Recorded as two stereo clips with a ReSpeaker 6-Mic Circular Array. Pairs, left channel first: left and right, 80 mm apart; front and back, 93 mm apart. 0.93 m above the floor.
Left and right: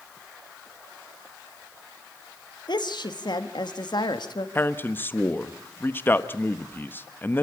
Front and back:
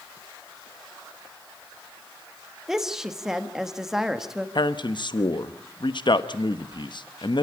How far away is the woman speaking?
About 1.5 m.